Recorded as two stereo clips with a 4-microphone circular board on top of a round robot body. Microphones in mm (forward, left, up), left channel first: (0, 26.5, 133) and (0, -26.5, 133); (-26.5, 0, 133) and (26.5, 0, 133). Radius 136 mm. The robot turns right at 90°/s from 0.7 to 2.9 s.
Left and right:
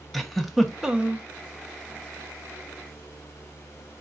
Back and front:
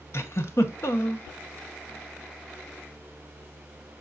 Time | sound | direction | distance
0.1 | a giggle | 175° left | 1.0 m